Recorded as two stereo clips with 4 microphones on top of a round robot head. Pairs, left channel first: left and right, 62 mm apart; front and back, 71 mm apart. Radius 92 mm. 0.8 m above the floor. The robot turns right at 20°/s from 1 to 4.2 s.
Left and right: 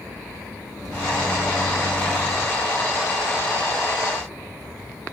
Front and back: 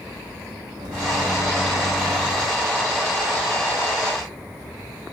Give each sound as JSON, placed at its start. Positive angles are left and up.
{"t": 0.8, "sound": "a microwave", "azimuth_deg": -175, "distance_m": 0.8}